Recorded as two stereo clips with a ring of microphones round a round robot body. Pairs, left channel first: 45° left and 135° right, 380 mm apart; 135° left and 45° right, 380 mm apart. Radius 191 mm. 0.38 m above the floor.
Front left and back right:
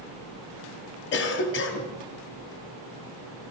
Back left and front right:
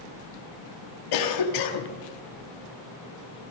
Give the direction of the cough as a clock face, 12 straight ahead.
9 o'clock.